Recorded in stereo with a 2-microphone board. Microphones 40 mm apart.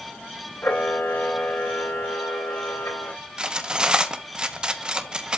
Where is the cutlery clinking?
20° right (ahead or behind), 0.9 m.